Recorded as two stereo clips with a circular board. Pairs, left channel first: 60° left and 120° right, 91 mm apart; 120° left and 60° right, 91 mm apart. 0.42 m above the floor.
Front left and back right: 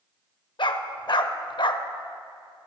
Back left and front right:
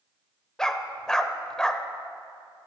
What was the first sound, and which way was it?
A dog barking, 35° left.